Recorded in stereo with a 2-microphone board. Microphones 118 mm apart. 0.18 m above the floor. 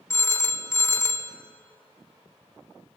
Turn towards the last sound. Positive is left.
turn(degrees=25)  # may be behind; listen again after turning